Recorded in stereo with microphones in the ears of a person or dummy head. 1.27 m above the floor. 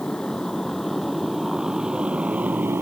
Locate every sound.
0.0 s a motorcycle: 10° left (ahead or behind); by 2.8 s 10° right (ahead or behind)